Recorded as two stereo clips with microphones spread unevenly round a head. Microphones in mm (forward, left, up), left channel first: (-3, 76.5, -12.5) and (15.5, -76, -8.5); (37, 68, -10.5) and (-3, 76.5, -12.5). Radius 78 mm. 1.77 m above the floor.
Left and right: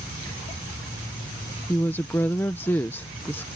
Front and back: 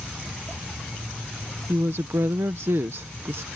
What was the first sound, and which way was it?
A woman speaking, 175° left.